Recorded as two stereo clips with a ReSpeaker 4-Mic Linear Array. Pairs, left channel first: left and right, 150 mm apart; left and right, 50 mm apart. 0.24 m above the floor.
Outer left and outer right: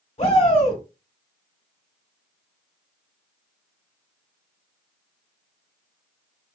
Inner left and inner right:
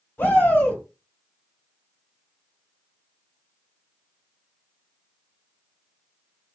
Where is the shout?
45° left (ahead or behind), 2 m.